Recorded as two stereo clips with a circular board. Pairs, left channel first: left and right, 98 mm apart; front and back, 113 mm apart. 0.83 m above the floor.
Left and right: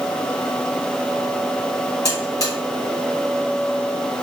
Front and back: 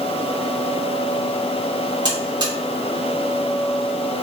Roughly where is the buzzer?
Behind left.